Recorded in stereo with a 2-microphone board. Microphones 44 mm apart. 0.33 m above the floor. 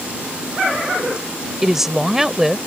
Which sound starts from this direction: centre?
A woman speaking, at 1.6 s.